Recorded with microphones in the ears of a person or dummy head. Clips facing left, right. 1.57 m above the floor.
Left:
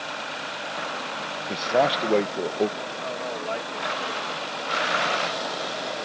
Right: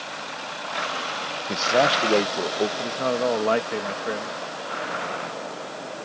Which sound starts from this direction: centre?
A man speaking, at 1.5 s.